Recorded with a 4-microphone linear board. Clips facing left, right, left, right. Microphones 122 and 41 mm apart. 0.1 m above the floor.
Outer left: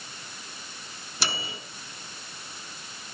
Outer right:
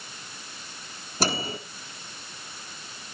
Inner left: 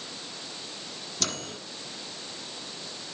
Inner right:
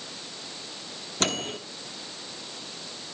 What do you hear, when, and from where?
1.2 s a microwave: 40° right (ahead or behind), 1.8 m